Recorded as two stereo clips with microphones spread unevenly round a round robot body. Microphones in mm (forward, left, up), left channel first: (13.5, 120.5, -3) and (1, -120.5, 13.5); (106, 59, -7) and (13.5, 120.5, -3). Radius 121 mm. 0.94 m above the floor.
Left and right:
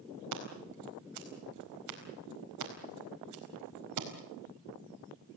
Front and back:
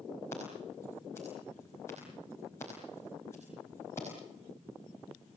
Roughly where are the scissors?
Behind right.